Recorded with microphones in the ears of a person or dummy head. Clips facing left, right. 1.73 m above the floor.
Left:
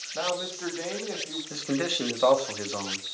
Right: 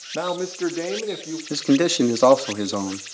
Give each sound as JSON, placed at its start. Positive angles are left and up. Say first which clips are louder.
{"t": 0.1, "sound": "a man speaking", "louder": "right 6 dB", "side_deg": -55, "distance_m": 1.1}
{"t": 1.5, "sound": "a man speaking", "louder": "right 11 dB", "side_deg": -60, "distance_m": 1.1}